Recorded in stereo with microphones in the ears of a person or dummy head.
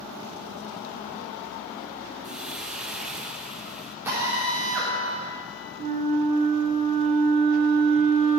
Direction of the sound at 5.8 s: 35° right (ahead or behind).